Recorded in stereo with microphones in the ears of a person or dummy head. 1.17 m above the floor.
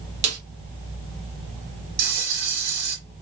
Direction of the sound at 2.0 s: 65° right (ahead or behind).